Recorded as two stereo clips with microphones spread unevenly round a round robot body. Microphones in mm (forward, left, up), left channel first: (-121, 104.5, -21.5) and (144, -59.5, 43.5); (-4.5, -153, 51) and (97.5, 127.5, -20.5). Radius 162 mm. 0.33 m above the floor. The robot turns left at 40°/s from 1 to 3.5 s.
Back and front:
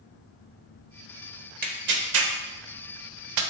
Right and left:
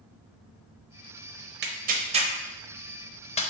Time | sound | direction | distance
1.6 | tearing paper | 35° left | 0.5 m